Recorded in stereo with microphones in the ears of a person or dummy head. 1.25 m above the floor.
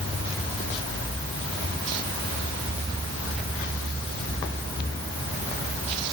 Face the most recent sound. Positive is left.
No sound to turn to.